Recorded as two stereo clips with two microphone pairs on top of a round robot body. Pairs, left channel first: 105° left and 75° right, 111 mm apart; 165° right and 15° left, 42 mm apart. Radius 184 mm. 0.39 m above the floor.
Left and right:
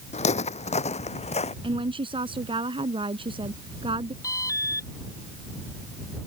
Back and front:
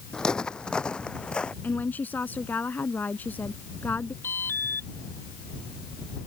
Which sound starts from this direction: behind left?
Footsteps, at 0.1 s.